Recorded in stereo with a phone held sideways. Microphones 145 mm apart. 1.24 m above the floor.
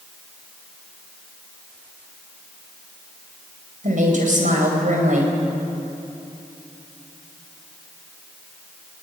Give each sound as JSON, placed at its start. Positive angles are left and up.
{"t": 3.8, "sound": "a woman speaking", "side_deg": -65, "distance_m": 5.0}